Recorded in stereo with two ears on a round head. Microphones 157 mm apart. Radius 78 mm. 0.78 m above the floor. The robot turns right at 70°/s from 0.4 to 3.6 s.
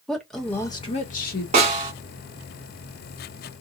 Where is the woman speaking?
Straight ahead, 1.0 m; by 1.4 s 75° left, 1.0 m.